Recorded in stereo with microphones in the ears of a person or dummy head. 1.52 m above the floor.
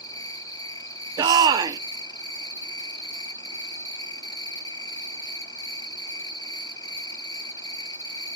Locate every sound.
0.0 s an insect: 20° left (ahead or behind), 0.7 m
1.2 s a shout: 25° right (ahead or behind), 0.9 m